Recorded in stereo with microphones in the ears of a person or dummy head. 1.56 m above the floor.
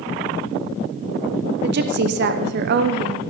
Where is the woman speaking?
60° right (ahead or behind), 0.9 m.